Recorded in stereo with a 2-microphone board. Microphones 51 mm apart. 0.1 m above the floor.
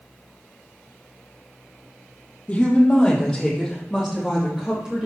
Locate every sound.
2.5 s a woman speaking: 25° left (ahead or behind), 3.5 m; by 5.1 s 15° right (ahead or behind), 5 m